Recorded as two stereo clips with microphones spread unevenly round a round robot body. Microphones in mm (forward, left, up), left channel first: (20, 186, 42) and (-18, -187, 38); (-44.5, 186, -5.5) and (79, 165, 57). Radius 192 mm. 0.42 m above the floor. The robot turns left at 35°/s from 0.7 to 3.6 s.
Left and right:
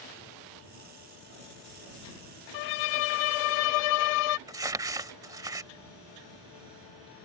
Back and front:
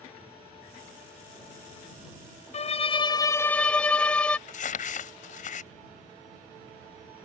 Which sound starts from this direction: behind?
Crumpling, at 4.5 s.